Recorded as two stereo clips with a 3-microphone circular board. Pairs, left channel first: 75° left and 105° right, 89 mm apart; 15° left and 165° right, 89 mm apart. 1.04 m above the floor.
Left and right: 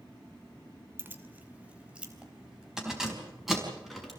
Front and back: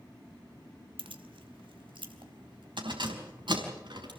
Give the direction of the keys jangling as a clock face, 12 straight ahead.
6 o'clock.